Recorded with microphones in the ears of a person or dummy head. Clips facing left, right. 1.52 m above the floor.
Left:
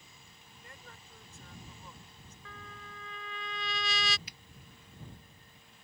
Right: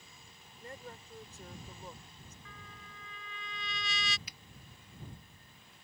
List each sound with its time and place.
0.6 s a woman speaking: 35° right (ahead or behind)
2.5 s a trumpet: 65° left (ahead or behind)
4.3 s a finger snap: 75° right (ahead or behind)